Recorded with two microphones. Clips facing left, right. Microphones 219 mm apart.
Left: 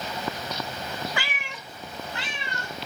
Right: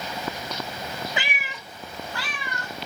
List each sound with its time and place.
1.2 s a cat meowing: 20° right (ahead or behind), 0.6 m; by 2.7 s 25° left (ahead or behind), 1.5 m